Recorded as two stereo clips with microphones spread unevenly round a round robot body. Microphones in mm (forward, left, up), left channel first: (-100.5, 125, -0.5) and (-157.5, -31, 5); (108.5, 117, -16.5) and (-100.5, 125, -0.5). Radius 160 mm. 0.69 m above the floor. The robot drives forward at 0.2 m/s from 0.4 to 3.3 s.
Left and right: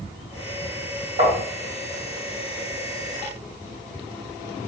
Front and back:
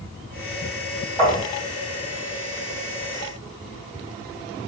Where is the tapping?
90° right, 1.7 m.